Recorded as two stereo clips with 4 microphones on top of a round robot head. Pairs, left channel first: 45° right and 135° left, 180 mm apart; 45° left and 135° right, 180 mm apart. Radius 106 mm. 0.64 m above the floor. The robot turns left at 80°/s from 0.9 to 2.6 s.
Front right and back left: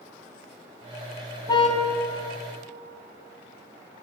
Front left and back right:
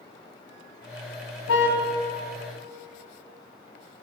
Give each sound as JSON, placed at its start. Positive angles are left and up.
{"t": 1.5, "sound": "a car horn", "azimuth_deg": 30, "distance_m": 3.0}